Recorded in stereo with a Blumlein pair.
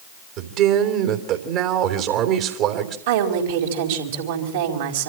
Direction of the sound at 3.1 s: 55° right.